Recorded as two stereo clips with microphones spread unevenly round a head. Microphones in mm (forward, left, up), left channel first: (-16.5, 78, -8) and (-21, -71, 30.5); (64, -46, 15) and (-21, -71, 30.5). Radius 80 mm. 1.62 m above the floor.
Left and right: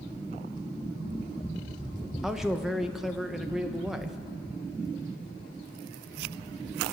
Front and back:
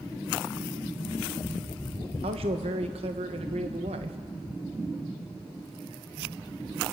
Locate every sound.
2.2 s a man speaking: 175° right, 1.3 m